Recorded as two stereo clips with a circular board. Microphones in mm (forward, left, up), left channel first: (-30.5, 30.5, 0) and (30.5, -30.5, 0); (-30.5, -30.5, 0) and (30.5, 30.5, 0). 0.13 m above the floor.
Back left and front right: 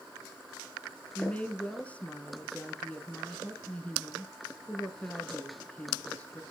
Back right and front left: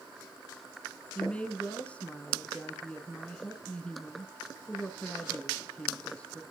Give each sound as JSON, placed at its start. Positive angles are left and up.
{"t": 1.1, "sound": "a woman speaking", "azimuth_deg": 175, "distance_m": 1.1}